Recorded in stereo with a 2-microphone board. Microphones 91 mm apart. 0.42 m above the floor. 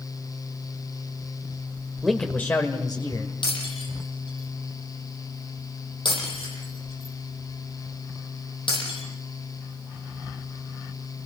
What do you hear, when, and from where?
2.0 s a man speaking: centre (ahead or behind), 1.4 m; by 3.3 s 60° left (ahead or behind), 2 m
3.4 s breaking glass: 65° left (ahead or behind), 8.5 m